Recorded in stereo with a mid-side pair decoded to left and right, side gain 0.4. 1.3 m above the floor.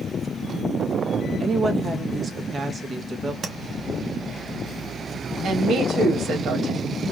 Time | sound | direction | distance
1.4 | a woman speaking | 35° right | 1.5 m
3.4 | tapping | 45° right | 0.9 m
5.4 | a woman speaking | 65° right | 1.8 m